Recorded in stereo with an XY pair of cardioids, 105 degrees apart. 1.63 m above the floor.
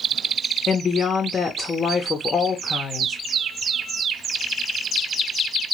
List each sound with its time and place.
0.7 s a woman speaking: 35° left, 0.8 m